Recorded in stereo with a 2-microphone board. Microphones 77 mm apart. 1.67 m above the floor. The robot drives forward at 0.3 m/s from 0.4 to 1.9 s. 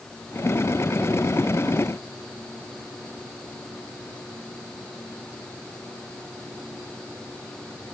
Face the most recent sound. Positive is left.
No sound to turn to.